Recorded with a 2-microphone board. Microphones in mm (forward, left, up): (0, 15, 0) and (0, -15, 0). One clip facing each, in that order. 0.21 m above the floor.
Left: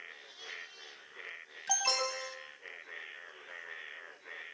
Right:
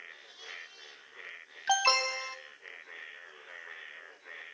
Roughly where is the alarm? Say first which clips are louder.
Right 6 dB; right.